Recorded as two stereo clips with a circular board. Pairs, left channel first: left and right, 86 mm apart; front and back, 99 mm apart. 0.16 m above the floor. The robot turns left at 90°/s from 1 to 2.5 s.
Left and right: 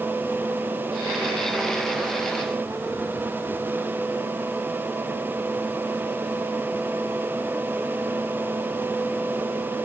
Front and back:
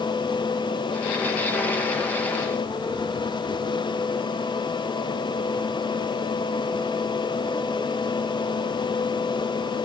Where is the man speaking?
I don't hear a man speaking.